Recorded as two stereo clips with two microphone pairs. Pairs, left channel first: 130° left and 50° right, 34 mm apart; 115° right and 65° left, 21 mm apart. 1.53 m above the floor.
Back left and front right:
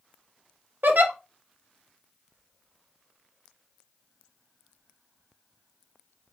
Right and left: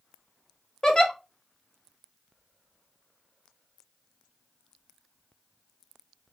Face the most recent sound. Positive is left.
turn(degrees=-55)